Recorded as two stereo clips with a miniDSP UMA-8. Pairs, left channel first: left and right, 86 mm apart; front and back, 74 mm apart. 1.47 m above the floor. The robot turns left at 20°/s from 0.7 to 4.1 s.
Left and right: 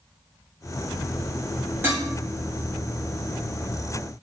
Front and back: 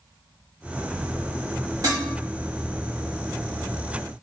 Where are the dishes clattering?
150° right, 1.4 m; by 2.1 s 155° right, 1.4 m.